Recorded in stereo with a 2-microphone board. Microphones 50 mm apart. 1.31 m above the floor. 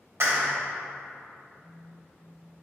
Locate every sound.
0.2 s a clap: 60° right (ahead or behind), 0.8 m
1.5 s a phone buzzing: 40° left (ahead or behind), 1.5 m